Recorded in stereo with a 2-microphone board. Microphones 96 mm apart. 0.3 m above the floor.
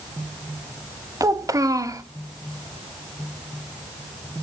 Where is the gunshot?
No gunshot in this recording.